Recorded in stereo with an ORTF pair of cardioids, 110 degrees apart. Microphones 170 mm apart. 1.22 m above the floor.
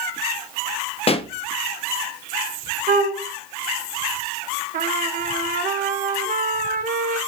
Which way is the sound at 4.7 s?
55° right.